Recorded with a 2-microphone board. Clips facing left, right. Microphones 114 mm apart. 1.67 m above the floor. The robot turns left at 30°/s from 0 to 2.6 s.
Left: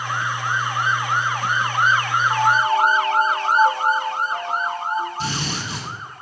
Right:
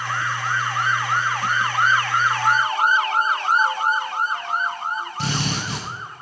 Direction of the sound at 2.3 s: 40° left (ahead or behind).